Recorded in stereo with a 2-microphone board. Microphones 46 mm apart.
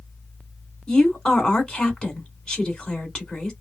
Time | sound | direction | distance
0.9 | a woman speaking | 20° left (ahead or behind) | 2.0 m